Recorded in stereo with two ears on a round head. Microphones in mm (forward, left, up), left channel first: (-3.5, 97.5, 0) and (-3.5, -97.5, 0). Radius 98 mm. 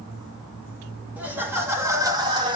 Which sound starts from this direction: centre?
Laughter, at 1.2 s.